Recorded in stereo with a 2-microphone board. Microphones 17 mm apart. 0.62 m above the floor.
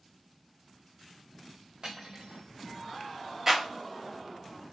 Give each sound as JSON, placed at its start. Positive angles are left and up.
{"t": 1.8, "sound": "cutlery clinking", "side_deg": -65, "distance_m": 1.5}
{"t": 3.5, "sound": "a clap", "side_deg": -25, "distance_m": 1.2}